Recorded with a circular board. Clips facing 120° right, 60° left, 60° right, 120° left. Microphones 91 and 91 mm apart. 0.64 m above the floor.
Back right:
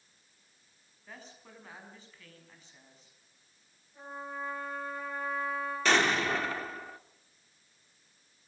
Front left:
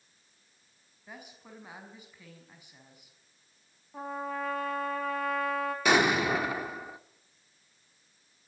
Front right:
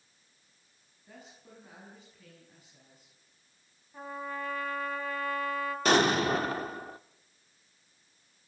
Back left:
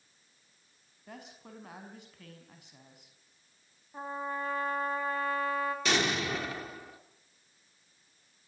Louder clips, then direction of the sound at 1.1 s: Front left 2 dB, back left 4 dB; 135° left.